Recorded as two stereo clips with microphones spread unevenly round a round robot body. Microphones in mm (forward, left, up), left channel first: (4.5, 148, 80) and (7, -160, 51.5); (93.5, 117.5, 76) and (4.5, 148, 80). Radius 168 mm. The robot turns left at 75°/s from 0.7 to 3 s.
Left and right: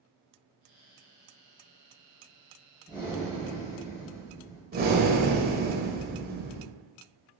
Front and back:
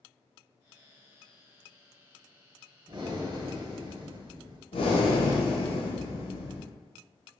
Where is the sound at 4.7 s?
35° right, 0.6 m.